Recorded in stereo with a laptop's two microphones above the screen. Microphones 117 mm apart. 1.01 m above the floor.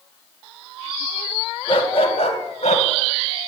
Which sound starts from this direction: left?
A dog barking, at 1.7 s.